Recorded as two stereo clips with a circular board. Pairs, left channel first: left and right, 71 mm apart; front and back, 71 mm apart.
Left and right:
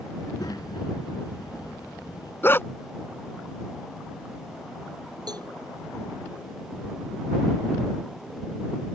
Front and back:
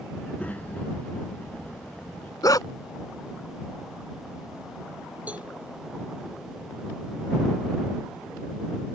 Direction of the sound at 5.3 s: 110° right.